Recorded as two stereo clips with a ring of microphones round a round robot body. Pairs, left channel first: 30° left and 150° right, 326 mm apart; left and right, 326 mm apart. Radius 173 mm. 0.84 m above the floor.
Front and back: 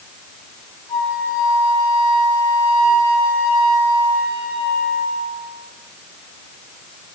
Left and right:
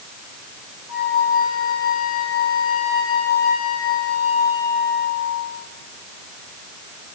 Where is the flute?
45° left, 6.5 m.